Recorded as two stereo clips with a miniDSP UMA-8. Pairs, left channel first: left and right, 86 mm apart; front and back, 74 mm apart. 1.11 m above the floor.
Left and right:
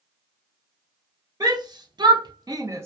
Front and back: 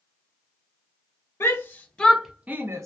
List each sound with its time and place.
1.4 s a shout: 50° right, 0.8 m; by 2.9 s 140° right, 0.6 m